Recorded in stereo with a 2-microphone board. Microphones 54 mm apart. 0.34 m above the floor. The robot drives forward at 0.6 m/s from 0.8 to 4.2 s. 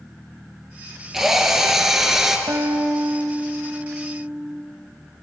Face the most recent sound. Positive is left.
turn(degrees=-85)